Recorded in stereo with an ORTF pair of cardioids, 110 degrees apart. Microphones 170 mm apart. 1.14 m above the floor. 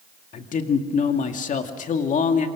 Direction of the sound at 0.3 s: 50° left.